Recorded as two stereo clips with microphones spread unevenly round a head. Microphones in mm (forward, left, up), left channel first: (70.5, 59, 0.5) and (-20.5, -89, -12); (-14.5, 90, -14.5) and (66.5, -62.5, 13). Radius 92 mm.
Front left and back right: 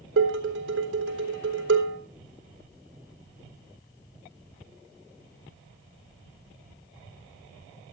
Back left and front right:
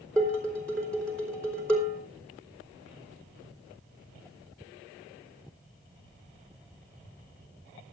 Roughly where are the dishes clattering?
Behind right.